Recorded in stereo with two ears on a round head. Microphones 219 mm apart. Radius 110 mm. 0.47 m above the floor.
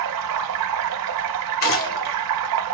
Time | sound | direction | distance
0.0 | running water | 75° right (ahead or behind) | 0.8 m
1.6 | a gunshot | 60° left (ahead or behind) | 1.7 m